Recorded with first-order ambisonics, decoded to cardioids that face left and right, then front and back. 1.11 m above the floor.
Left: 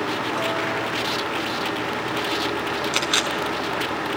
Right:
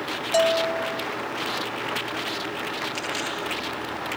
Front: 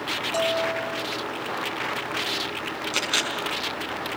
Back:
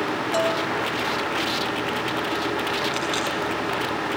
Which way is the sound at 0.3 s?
100° right.